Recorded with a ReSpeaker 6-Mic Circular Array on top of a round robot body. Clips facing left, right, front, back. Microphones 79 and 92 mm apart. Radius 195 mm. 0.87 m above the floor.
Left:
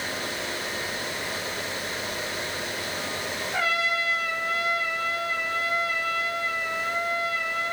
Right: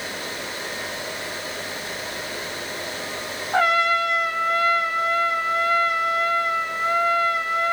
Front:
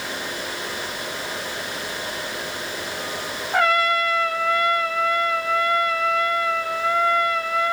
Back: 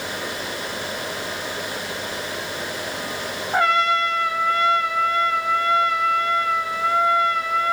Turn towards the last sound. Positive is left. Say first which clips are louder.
# right 8 dB, even
turn(degrees=-115)